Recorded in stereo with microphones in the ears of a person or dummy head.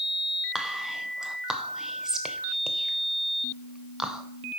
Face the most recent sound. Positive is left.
turn(degrees=-5)  # may be behind; listen again after turning